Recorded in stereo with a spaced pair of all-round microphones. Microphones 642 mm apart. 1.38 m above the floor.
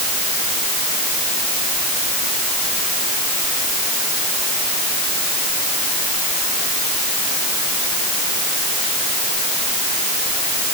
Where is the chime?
No chime in this recording.